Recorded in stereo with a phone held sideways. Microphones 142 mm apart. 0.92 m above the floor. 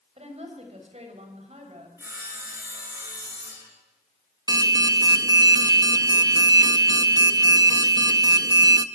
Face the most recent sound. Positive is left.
turn(degrees=-25)  # may be behind; listen again after turning